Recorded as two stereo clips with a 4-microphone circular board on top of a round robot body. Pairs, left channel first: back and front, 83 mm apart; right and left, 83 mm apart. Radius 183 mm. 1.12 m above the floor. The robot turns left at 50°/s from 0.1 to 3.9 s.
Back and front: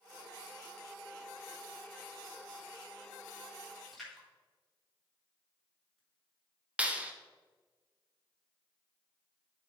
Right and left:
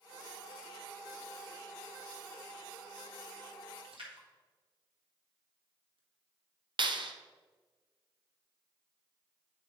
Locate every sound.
3.8 s a splash: 95° left, 1.6 m; by 6.0 s 90° left, 1.6 m
6.8 s a clap: 75° left, 0.7 m